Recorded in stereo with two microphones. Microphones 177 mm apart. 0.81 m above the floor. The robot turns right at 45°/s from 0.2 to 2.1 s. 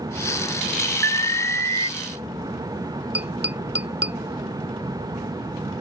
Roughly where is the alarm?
Right.